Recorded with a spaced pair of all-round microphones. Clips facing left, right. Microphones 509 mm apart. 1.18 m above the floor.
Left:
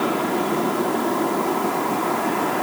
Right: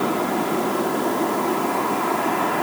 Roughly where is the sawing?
I don't hear sawing.